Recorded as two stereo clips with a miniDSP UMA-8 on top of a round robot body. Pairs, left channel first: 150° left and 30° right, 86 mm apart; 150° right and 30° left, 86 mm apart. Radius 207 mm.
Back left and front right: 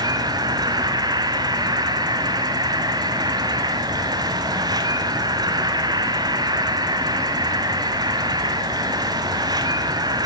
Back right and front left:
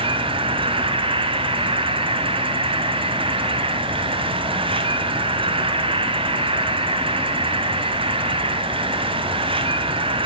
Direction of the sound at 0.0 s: 15° left.